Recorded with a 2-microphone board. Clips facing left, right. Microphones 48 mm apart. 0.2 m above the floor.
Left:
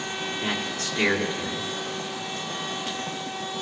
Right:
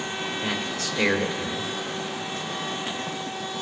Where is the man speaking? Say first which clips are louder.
Even; 40° left (ahead or behind), 2 m.